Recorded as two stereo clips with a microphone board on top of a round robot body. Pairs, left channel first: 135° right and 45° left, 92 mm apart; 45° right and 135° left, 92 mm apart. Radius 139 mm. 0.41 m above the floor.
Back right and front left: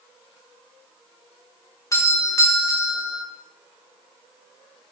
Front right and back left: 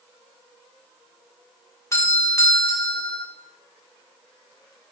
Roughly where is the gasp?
I don't hear a gasp.